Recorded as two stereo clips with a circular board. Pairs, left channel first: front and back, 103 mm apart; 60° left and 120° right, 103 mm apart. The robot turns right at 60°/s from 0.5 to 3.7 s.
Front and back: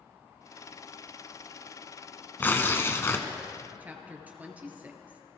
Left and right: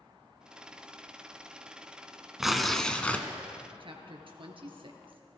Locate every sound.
2.4 s tearing paper: 40° right, 1.1 m; by 3.3 s 10° left, 1.1 m
3.8 s a woman speaking: 110° right, 2 m